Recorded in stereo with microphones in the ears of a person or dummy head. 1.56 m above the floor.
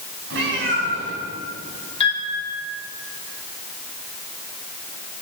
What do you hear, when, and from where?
0.3 s a cat meowing: 70° right (ahead or behind), 2.5 m
2.0 s a piano: 30° left (ahead or behind), 3 m